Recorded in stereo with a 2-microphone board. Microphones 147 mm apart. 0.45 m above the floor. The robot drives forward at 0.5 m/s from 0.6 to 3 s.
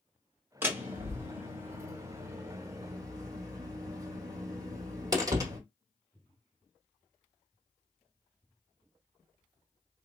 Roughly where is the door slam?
Centre.